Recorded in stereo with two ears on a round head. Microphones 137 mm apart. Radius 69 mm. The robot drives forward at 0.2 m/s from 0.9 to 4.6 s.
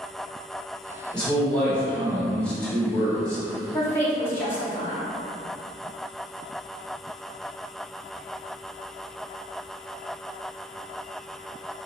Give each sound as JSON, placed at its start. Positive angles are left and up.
{"t": 1.1, "sound": "a man speaking", "side_deg": 10, "distance_m": 1.4}
{"t": 3.7, "sound": "a woman speaking", "side_deg": 20, "distance_m": 1.1}